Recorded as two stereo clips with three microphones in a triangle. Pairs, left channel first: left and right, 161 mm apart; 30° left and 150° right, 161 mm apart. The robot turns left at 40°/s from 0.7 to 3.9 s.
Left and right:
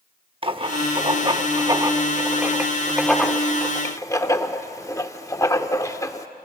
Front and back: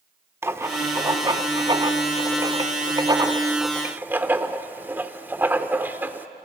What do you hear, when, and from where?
0.4 s writing: 90° right, 0.8 m; by 6.3 s 145° left, 0.8 m